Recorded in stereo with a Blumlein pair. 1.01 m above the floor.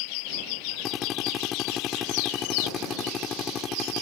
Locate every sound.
0.8 s a drill: 25° left